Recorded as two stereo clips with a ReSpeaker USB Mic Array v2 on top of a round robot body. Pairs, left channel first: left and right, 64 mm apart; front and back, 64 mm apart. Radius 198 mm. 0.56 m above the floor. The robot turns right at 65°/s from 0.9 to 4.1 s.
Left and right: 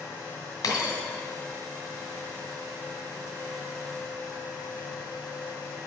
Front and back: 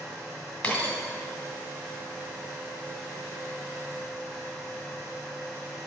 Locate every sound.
0.6 s a dropped coin: 65° left, 2 m; by 1.0 s 70° left, 2 m